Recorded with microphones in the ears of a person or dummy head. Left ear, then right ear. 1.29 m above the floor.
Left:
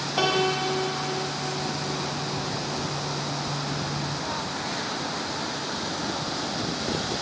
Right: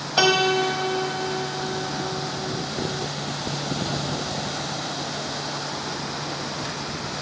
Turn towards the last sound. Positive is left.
turn(degrees=-35)  # may be behind; listen again after turning